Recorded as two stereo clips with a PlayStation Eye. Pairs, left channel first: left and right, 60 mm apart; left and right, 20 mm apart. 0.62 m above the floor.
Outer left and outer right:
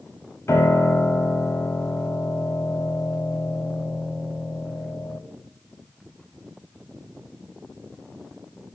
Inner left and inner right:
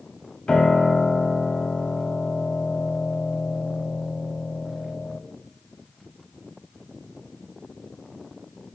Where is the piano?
50° left (ahead or behind), 0.7 m.